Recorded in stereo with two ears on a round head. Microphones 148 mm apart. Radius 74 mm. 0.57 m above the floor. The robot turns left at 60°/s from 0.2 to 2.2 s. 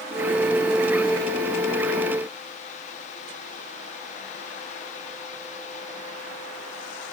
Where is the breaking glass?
No breaking glass in this recording.